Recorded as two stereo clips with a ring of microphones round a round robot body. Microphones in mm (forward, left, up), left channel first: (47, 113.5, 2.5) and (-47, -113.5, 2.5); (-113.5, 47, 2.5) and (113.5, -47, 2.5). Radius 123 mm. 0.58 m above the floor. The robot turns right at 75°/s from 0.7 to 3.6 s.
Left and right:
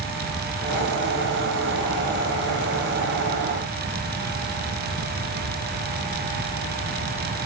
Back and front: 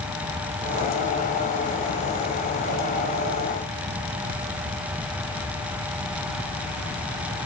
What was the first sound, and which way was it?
Only background noise.